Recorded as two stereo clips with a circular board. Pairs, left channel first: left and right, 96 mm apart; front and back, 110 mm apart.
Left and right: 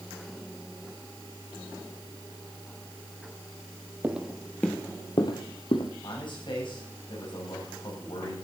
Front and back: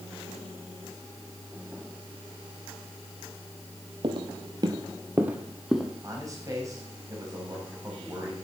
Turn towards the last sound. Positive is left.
turn(degrees=120)